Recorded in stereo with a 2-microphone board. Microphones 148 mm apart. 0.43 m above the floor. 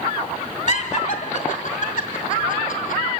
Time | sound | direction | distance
0.7 | laughter | 50° left (ahead or behind) | 1.6 m